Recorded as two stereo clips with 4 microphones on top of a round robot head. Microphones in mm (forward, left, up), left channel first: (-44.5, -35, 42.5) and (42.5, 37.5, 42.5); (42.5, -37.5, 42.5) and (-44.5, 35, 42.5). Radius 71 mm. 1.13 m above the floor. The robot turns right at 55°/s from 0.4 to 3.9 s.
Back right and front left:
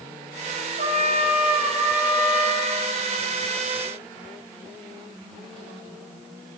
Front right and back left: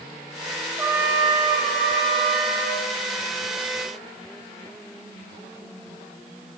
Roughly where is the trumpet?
Left.